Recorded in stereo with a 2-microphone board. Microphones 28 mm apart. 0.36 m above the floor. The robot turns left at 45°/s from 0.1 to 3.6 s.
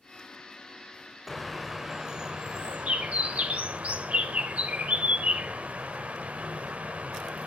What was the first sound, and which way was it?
A bird, 10° left.